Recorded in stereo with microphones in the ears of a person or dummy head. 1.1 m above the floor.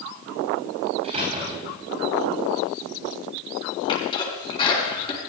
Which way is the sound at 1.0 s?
40° right (ahead or behind).